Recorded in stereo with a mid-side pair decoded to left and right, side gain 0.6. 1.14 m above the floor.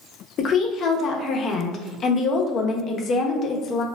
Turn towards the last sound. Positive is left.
turn(degrees=45)